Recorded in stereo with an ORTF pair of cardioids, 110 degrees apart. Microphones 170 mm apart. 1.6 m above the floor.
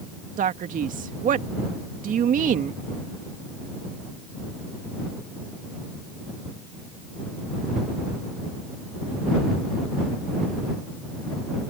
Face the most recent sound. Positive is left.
turn(degrees=-50)